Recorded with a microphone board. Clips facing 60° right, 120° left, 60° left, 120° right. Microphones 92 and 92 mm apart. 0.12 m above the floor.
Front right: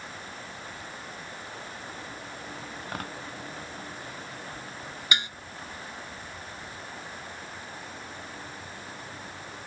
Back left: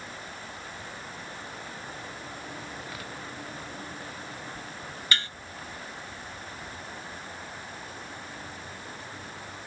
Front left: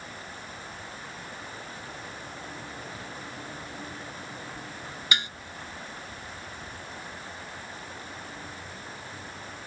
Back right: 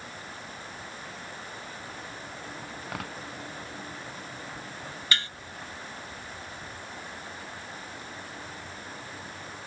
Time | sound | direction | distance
2.8 | tearing paper | 100° right | ?
5.1 | dishes clattering | straight ahead | ?